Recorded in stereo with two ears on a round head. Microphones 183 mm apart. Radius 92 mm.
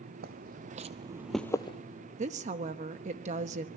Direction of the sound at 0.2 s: 50° right (ahead or behind).